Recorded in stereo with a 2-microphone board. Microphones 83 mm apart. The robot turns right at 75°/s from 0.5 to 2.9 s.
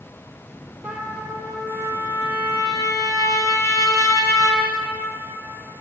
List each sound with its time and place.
0.8 s a trumpet: 15° right, 1.2 m; by 4.6 s 140° left, 1.2 m